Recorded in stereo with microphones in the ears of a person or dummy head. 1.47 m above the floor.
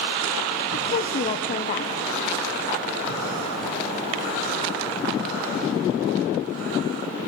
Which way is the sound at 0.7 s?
35° left (ahead or behind).